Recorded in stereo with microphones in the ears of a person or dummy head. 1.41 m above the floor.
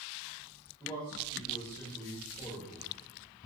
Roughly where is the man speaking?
Left.